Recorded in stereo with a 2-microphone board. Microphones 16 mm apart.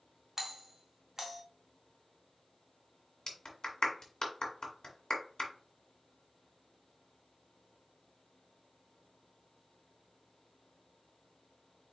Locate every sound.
0.4 s a doorbell: 20° right (ahead or behind), 1.4 m
3.3 s a clap: 55° left (ahead or behind), 1.8 m